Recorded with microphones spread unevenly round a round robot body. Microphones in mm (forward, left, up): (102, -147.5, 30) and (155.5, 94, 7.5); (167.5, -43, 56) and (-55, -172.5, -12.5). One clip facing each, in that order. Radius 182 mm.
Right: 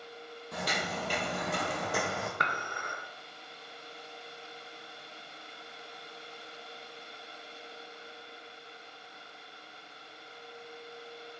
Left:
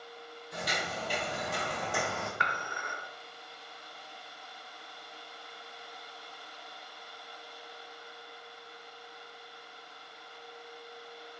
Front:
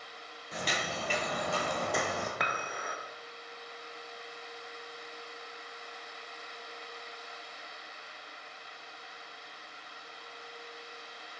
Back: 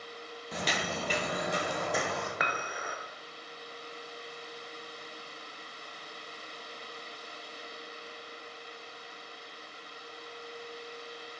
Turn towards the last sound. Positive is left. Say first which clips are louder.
# right 1 dB, back 1 dB
turn(degrees=-85)